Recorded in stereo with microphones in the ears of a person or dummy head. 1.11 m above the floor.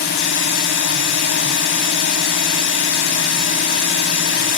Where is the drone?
60° left (ahead or behind).